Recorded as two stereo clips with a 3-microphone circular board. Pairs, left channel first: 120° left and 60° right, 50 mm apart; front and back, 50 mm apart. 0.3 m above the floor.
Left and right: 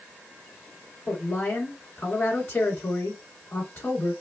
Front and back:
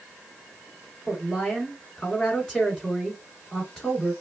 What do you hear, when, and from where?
1.1 s a woman speaking: 75° left, 2.5 m